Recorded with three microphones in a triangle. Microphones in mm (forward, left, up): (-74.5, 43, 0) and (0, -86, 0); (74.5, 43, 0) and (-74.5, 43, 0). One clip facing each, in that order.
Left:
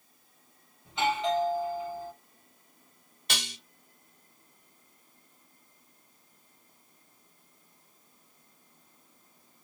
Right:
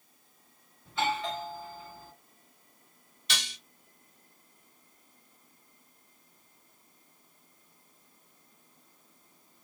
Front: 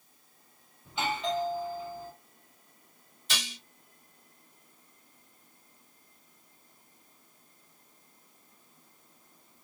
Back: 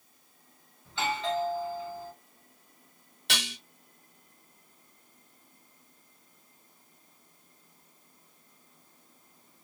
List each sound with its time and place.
0.8 s a doorbell: 65° left, 1.5 m
3.3 s dishes clattering: 160° left, 0.9 m